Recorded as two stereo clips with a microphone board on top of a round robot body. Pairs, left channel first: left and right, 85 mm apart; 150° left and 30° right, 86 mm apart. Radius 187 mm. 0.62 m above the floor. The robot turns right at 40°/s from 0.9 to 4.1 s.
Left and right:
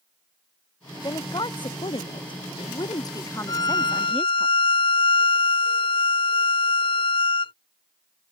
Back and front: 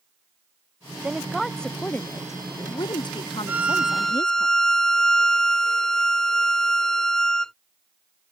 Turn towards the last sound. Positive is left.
turn(degrees=65)